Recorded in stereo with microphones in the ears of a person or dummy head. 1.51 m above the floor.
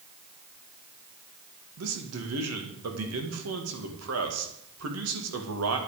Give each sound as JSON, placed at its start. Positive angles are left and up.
{"t": 1.8, "sound": "a man speaking", "side_deg": -75, "distance_m": 2.0}